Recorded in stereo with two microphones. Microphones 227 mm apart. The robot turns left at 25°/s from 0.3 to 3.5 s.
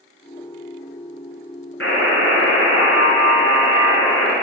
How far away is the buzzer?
About 3 m.